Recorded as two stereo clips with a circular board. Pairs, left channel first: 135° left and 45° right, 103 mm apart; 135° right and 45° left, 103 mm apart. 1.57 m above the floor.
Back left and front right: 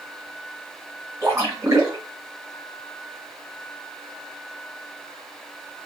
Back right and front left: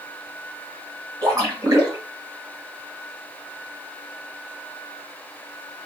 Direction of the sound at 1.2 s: 10° left.